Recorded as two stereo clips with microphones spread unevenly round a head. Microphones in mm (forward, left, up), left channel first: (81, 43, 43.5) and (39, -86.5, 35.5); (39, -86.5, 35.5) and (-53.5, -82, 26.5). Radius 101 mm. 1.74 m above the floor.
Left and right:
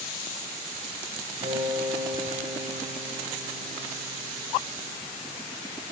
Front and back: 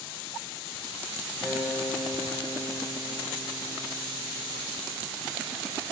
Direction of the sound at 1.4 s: 65° right.